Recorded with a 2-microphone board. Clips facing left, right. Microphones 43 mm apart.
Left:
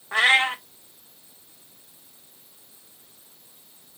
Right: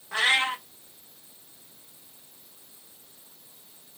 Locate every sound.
0.1 s a cat meowing: 30° left (ahead or behind), 0.6 m